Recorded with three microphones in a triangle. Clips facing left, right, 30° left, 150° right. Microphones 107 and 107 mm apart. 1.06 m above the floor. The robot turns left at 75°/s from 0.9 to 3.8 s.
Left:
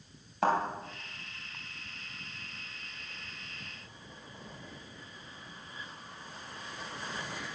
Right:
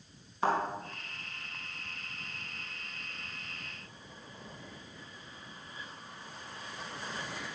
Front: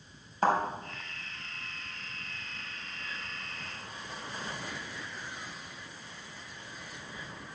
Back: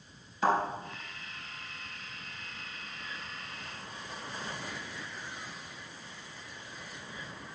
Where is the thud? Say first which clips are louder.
Left 2 dB, front 1 dB; 75° left, 3.5 m.